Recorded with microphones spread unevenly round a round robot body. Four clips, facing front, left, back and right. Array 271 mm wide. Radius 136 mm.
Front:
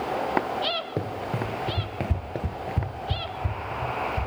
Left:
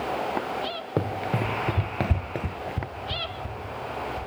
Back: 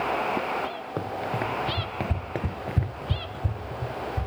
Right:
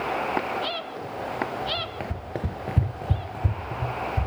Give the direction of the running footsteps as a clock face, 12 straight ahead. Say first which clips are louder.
Left 6 dB, back 1 dB; 9 o'clock.